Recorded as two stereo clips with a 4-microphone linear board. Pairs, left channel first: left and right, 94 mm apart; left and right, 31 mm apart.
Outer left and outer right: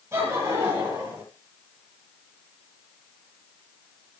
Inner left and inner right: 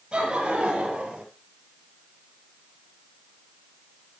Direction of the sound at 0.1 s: 35° right (ahead or behind).